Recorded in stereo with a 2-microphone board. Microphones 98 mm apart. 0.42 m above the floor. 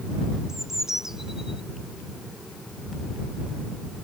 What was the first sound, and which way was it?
A bird, 5° right (ahead or behind).